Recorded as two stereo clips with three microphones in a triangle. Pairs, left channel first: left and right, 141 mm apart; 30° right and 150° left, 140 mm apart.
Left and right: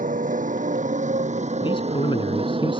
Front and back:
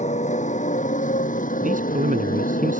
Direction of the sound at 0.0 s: 65° right.